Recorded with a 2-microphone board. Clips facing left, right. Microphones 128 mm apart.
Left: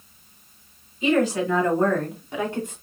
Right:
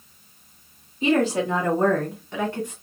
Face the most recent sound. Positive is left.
turn(degrees=25)  # may be behind; listen again after turning